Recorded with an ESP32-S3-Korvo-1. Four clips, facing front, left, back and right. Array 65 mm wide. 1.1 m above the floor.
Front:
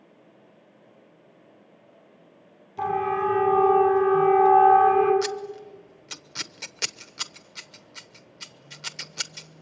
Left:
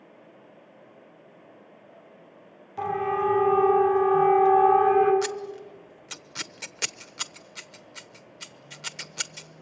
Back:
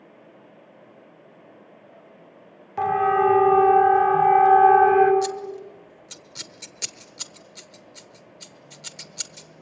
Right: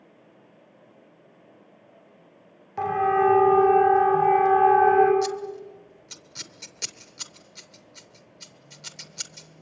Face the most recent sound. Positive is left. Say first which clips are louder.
# right 3 dB, back 3 dB
turn(degrees=50)